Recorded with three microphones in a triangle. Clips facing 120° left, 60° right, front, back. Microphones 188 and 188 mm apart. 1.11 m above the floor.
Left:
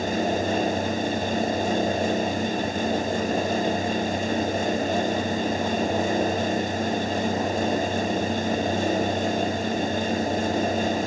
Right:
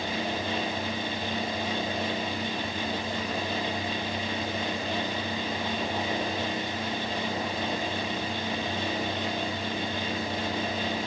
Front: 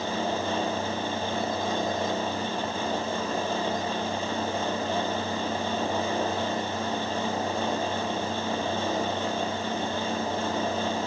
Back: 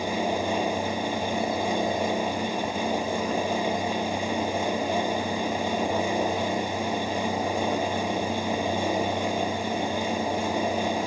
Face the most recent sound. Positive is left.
No sound to turn to.